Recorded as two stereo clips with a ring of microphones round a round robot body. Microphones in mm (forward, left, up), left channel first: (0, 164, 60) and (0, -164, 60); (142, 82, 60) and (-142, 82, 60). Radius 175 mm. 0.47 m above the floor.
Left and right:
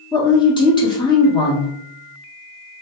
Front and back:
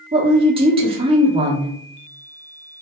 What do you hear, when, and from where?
0.1 s a woman speaking: 145° left, 0.8 m